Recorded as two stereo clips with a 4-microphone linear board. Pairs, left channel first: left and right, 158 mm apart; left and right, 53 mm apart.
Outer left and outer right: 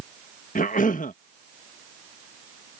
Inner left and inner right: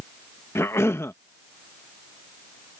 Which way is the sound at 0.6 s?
65° left (ahead or behind).